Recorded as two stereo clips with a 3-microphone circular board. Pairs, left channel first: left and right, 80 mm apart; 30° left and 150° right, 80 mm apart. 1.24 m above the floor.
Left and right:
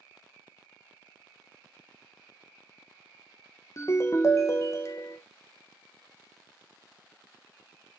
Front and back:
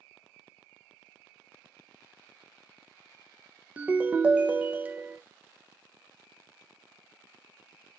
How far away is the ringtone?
About 0.6 m.